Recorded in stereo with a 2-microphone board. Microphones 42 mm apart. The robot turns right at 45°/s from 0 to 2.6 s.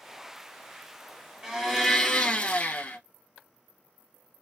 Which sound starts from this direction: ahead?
A blender, at 1.4 s.